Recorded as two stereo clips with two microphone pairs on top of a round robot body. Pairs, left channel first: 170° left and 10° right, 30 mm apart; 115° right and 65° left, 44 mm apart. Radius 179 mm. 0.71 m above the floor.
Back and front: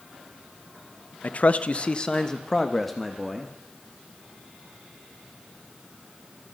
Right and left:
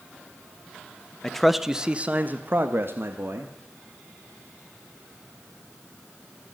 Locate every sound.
1.2 s a man speaking: 165° left, 1.5 m; by 3.5 s 75° left, 2.5 m